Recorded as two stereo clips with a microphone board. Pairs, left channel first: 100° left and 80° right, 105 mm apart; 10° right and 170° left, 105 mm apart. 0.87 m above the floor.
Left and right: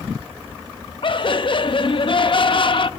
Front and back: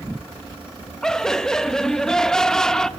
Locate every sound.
1.0 s laughter: 75° left, 0.7 m